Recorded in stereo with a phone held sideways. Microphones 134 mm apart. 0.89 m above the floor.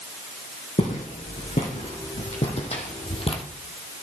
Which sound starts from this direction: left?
Footsteps, at 0.8 s.